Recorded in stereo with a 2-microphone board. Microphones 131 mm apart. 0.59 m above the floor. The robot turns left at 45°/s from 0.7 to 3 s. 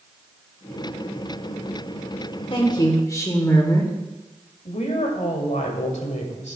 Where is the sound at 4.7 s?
75° left (ahead or behind), 2 m.